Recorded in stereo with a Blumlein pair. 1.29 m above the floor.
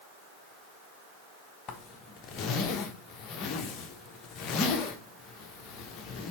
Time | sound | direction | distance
1.7 | a zipper | 30° left | 1.0 m